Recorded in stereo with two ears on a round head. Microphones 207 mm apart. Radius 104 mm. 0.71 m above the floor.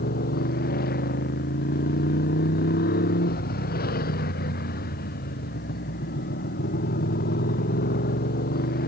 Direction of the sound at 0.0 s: 40° left (ahead or behind).